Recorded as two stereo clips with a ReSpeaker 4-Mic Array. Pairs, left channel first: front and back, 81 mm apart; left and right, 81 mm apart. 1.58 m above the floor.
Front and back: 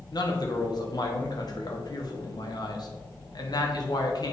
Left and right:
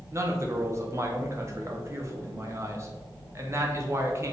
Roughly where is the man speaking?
Ahead right.